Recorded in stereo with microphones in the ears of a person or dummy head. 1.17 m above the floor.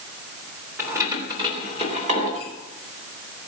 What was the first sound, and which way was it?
Keys jangling, 20° right (ahead or behind).